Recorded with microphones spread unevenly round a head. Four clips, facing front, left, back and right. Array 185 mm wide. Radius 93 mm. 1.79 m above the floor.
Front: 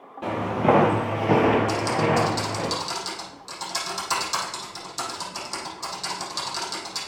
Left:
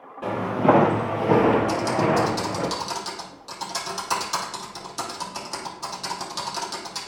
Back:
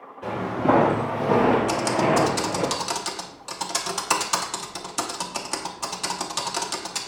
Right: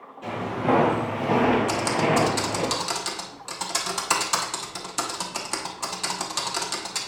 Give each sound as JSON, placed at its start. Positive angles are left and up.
{"t": 0.2, "sound": "footsteps", "azimuth_deg": 45, "distance_m": 2.5}
{"t": 1.7, "sound": "typing on a keyboard", "azimuth_deg": -160, "distance_m": 1.0}